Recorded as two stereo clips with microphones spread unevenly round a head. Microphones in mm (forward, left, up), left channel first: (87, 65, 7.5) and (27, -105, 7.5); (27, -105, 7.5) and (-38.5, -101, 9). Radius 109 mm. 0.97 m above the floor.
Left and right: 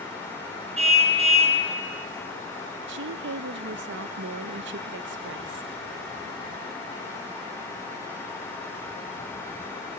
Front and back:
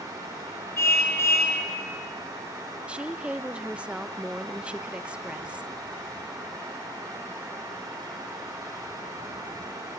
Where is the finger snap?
No finger snap in this recording.